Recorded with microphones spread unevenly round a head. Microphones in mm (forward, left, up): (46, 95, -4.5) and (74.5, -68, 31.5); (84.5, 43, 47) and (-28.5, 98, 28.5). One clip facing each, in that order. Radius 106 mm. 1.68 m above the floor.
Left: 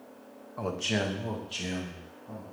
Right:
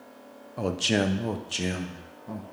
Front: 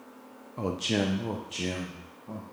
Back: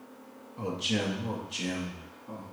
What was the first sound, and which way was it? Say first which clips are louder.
A man speaking: right 5 dB, front 3 dB; 45° right.